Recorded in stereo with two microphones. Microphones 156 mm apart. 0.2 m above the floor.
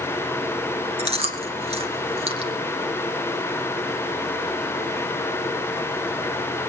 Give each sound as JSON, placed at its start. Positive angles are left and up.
{"t": 1.0, "sound": "chewing", "side_deg": -40, "distance_m": 3.0}